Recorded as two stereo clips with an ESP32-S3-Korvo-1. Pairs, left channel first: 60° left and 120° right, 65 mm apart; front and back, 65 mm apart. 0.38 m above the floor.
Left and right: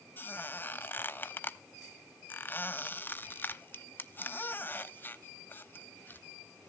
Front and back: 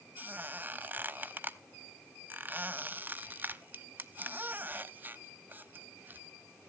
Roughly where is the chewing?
No chewing in this recording.